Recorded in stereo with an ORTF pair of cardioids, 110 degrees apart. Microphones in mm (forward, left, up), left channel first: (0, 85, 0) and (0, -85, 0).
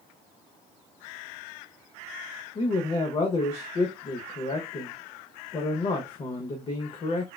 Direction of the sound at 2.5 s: 35° left.